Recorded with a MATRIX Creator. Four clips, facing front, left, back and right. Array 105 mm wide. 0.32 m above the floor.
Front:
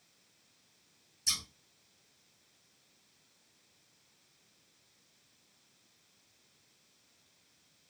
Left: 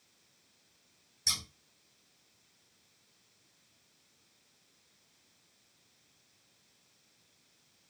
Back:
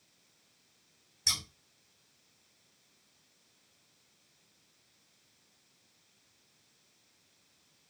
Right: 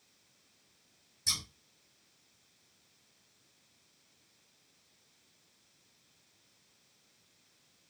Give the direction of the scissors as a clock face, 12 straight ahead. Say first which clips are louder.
Left 1 dB, back 3 dB; 7 o'clock.